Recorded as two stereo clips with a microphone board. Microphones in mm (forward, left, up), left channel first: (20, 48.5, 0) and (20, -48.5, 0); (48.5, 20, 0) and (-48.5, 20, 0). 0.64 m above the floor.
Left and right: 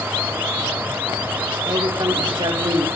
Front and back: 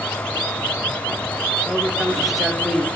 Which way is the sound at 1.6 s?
95° right.